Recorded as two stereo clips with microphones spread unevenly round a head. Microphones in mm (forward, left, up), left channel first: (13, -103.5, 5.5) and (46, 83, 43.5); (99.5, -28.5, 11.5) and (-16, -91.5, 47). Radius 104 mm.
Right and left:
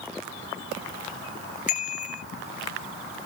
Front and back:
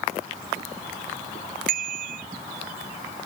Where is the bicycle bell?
155° right.